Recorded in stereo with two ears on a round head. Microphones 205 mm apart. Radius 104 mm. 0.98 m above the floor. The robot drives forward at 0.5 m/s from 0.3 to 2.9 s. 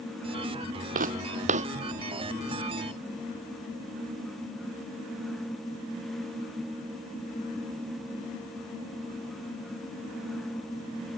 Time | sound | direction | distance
0.9 | footsteps | 40° right (ahead or behind) | ?